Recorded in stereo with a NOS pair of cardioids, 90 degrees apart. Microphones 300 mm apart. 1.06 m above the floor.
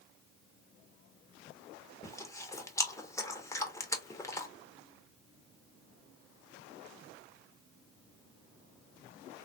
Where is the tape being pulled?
I don't hear tape being pulled.